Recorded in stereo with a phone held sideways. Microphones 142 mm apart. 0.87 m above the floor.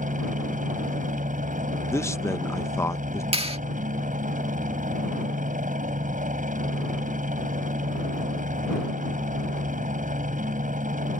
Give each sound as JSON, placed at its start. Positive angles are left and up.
{"t": 0.0, "sound": "a helicopter", "side_deg": -65}
{"t": 1.9, "sound": "a man speaking", "side_deg": 20}
{"t": 3.3, "sound": "a clap", "side_deg": -45}